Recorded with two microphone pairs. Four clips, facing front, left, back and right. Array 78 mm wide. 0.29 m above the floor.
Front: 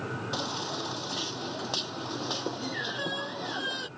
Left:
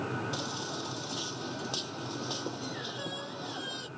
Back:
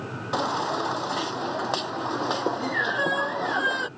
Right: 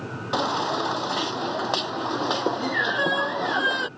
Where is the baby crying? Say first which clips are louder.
Right 13 dB, back 14 dB; 135° right.